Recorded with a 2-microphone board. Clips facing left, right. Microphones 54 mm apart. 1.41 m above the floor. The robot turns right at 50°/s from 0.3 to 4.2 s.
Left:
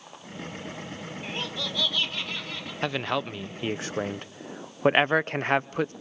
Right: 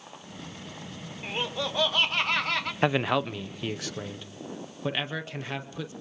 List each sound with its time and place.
1.2 s laughter: 170° right, 1.2 m; by 2.7 s 100° right, 1.2 m
2.8 s a man speaking: 20° right, 0.7 m; by 5.9 s 50° left, 0.7 m